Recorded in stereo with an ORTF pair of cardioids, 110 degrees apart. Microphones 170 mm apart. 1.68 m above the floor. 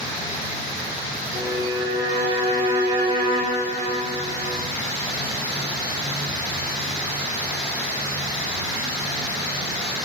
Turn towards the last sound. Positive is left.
turn(degrees=-35)